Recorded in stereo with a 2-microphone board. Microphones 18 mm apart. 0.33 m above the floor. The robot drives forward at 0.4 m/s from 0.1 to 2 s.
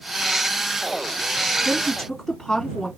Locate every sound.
1.6 s a woman speaking: 5° left (ahead or behind), 2.5 m